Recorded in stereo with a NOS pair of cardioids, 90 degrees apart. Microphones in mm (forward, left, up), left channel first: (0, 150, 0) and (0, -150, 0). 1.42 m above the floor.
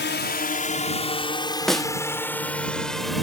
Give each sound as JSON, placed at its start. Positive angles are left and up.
{"t": 0.0, "sound": "a drone", "azimuth_deg": 40}
{"t": 1.7, "sound": "a snare drum", "azimuth_deg": 0}